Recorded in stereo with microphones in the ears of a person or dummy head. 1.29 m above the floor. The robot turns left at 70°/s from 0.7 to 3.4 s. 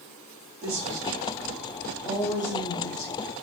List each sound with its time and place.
0.6 s a woman speaking: 110° right, 0.7 m; by 3.3 s 70° left, 0.7 m